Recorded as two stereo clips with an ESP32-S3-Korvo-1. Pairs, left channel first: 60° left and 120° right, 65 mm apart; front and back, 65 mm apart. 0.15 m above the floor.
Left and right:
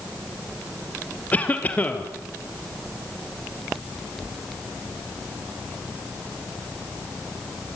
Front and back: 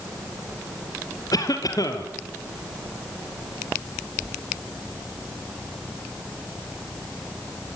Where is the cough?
5° right, 3.5 m.